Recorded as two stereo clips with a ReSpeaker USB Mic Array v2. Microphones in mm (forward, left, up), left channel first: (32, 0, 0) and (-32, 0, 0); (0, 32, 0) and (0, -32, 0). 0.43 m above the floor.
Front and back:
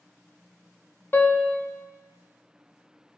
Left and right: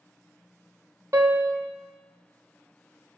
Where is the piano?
55° right, 0.5 m.